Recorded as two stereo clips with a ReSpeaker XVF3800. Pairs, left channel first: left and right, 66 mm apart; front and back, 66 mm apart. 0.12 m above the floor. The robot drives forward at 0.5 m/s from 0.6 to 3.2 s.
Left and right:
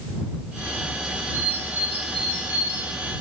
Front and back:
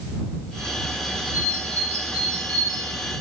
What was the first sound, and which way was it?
A bird, 135° right.